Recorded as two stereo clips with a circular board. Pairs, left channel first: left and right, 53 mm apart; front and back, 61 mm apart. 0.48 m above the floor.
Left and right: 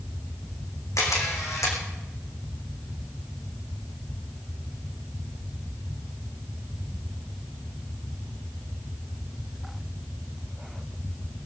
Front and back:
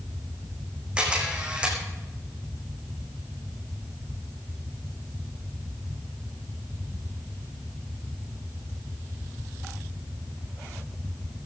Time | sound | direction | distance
1.0 | a camera shutter | 110° left | 4 m